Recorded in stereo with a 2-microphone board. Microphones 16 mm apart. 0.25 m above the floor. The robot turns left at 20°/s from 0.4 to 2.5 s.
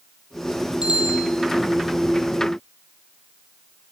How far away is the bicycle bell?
About 6 m.